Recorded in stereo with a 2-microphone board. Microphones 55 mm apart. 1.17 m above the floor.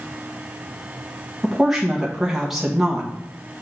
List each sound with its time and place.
1.4 s a woman speaking: 5° right (ahead or behind), 1.3 m